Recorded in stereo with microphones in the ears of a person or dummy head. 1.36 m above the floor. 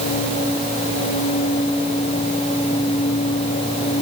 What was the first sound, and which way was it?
Only background noise.